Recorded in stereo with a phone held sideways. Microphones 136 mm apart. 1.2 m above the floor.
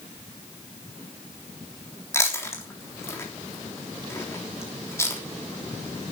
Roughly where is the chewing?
Centre.